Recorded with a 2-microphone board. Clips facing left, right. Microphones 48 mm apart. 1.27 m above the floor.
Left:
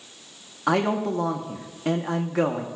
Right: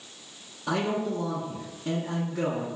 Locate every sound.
0.7 s a man speaking: 70° left (ahead or behind), 1.0 m